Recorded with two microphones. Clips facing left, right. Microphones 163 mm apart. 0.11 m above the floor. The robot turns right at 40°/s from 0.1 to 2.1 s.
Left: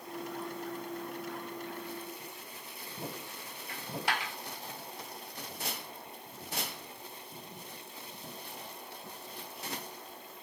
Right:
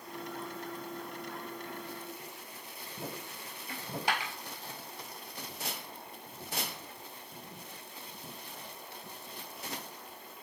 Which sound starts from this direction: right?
A dropped coin, at 3.7 s.